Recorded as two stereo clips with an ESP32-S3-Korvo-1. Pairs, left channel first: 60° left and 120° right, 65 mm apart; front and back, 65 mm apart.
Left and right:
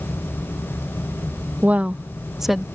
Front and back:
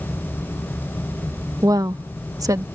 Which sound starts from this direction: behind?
A woman speaking, at 1.6 s.